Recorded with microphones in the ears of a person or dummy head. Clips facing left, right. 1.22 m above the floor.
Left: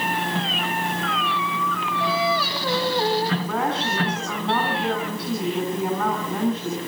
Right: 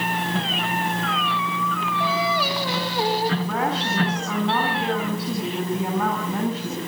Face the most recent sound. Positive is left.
turn(degrees=-10)  # may be behind; listen again after turning